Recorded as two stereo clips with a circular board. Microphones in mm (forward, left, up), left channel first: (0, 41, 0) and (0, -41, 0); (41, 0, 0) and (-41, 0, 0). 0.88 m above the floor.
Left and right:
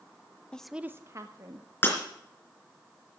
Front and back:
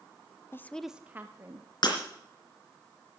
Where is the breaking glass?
25° left, 3.5 m.